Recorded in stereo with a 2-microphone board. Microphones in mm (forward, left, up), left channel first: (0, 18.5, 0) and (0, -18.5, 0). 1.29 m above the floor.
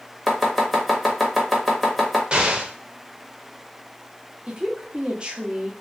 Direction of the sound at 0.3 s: 5° right (ahead or behind).